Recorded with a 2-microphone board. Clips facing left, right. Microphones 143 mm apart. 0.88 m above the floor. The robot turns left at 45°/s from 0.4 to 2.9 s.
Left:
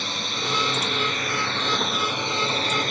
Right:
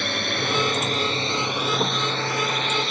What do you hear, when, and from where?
0.0 s a drone: 65° right (ahead or behind); by 2.9 s 50° left (ahead or behind)